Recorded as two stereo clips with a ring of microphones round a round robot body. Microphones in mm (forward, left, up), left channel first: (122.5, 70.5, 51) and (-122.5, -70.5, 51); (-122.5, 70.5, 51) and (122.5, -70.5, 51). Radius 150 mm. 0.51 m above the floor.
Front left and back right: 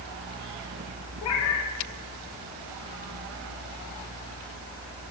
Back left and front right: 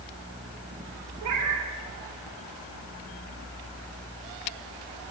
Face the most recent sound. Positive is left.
turn(degrees=0)